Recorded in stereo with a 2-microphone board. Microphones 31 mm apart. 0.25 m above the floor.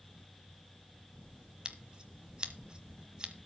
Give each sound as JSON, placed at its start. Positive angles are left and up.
{"t": 1.6, "sound": "scissors", "side_deg": -25, "distance_m": 1.2}